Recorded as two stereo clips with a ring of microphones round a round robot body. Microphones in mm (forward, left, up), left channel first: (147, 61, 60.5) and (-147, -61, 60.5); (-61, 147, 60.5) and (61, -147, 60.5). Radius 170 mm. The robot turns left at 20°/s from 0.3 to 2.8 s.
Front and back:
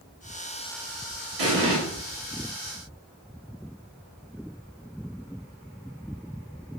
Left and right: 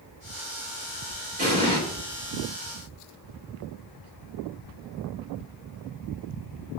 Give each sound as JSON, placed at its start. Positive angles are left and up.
{"t": 1.4, "sound": "an explosion", "azimuth_deg": -135, "distance_m": 1.2}